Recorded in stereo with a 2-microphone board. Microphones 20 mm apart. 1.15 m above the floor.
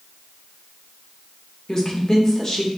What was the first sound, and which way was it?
A woman speaking, 20° left (ahead or behind).